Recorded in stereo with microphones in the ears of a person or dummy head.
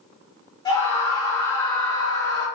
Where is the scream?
25° left (ahead or behind), 4 m.